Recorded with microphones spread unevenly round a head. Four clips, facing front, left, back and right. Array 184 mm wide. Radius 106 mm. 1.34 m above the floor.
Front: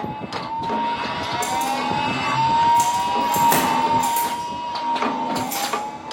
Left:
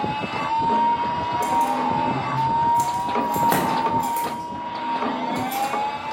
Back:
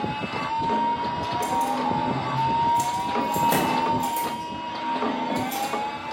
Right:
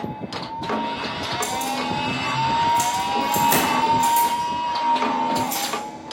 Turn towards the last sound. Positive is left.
turn(degrees=45)